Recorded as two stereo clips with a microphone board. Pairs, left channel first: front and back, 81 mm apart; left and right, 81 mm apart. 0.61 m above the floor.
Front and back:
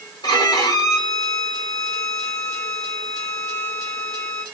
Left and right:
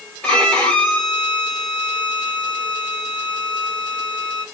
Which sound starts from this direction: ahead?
A violin, at 0.2 s.